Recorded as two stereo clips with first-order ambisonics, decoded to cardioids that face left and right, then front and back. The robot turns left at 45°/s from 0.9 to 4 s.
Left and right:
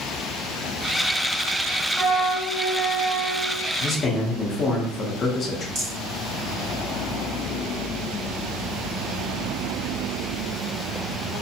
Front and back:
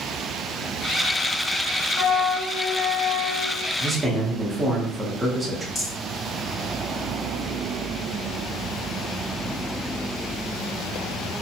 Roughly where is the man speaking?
Behind left.